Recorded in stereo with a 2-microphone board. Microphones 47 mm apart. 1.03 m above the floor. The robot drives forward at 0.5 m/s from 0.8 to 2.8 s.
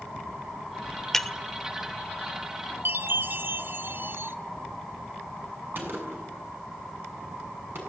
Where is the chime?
50° right (ahead or behind), 0.9 m.